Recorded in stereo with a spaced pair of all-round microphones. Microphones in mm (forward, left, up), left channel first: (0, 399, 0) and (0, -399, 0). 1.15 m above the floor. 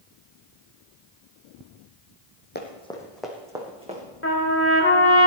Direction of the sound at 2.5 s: 10° left (ahead or behind).